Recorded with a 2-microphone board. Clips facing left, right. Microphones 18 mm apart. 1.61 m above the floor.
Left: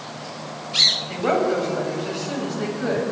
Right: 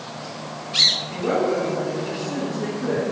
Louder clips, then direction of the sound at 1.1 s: Left 1 dB; 60° left (ahead or behind).